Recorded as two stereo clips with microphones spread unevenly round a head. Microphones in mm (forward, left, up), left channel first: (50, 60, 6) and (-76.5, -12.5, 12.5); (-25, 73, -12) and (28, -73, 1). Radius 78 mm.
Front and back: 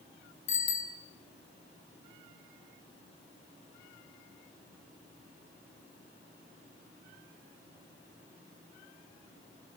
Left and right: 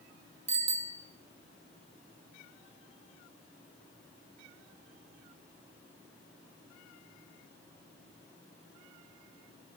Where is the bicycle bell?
20° right, 3 m.